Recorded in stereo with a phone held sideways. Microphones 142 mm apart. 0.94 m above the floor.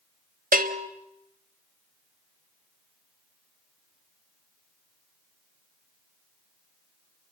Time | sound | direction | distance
0.5 | a bell | 80° right | 1.2 m